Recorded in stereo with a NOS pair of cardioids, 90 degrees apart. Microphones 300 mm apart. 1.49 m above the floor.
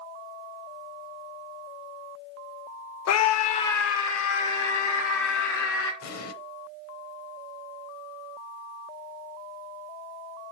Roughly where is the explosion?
Ahead left.